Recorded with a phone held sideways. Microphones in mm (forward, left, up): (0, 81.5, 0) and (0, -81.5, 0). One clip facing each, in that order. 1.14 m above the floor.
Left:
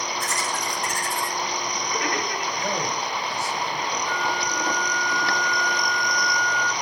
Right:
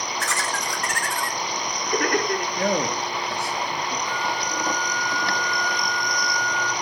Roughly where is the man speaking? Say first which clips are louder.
Right 5 dB; right.